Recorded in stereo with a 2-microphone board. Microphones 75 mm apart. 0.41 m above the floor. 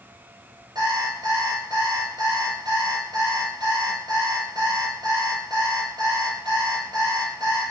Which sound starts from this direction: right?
An alarm clock, at 0.8 s.